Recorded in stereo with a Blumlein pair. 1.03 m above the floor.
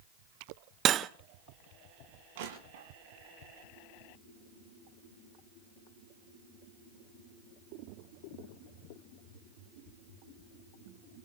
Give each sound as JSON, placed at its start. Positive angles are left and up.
{"t": 0.8, "sound": "cutlery clinking", "azimuth_deg": -30, "distance_m": 0.6}
{"t": 2.4, "sound": "crushing", "azimuth_deg": -55, "distance_m": 6.0}